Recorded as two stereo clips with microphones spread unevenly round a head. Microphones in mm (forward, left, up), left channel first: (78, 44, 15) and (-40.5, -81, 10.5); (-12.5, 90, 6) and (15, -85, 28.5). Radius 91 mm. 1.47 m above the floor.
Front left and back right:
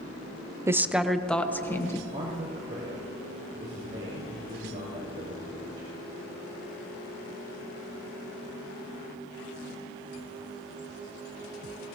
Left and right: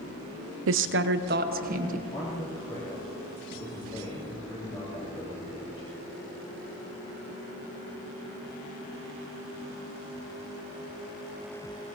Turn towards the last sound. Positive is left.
turn(degrees=165)